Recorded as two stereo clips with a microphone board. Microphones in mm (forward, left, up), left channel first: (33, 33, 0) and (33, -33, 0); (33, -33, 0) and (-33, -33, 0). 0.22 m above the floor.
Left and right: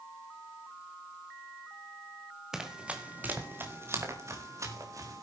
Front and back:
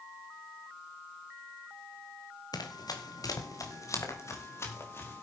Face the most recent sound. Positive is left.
turn(degrees=-55)